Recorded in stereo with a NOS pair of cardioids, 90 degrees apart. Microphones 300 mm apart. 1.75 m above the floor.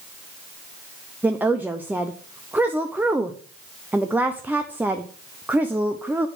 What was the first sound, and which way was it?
A woman speaking, 5° right.